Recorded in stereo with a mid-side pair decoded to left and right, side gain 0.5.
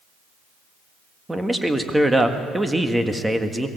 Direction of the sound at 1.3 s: 10° right.